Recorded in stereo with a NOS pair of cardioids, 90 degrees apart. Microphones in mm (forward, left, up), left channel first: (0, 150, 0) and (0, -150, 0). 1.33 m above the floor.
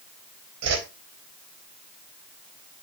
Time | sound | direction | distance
0.6 | a whoosh | 65° right | 3.5 m